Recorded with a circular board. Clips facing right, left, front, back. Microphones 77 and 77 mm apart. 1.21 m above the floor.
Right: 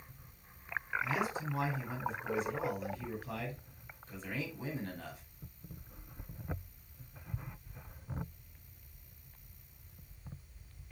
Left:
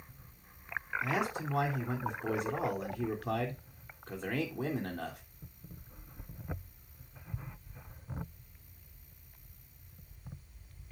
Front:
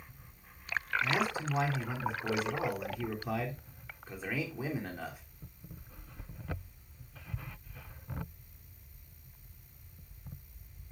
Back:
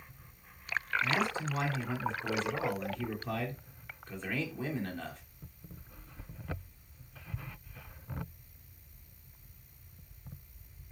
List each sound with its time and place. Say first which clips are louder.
1.0 s a man speaking: left 3 dB, even; 80° left, 3 m